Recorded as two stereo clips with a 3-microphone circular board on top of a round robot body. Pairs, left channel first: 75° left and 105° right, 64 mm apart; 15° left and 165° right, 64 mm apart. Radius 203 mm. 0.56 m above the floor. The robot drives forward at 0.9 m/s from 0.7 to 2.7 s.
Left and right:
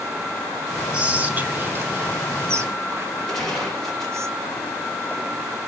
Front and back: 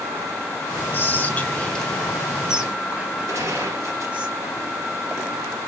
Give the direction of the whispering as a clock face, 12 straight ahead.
1 o'clock.